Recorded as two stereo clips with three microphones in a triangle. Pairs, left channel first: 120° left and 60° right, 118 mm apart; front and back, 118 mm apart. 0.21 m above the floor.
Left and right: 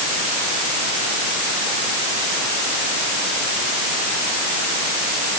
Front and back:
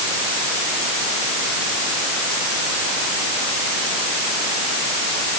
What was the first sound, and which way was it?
Only background noise.